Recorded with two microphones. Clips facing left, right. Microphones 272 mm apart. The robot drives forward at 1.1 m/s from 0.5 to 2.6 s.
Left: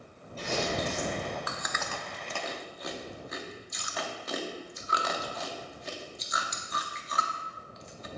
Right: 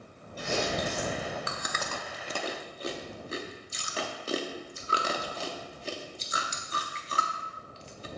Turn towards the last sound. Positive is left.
turn(degrees=-30)  # may be behind; listen again after turning